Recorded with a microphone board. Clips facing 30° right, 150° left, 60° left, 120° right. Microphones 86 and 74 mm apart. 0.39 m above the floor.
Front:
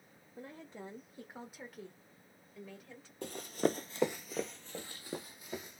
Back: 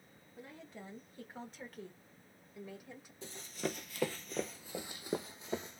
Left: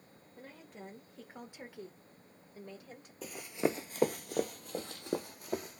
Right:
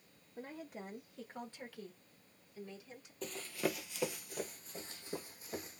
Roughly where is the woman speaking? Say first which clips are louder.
Front 3 dB, right 4 dB; ahead right.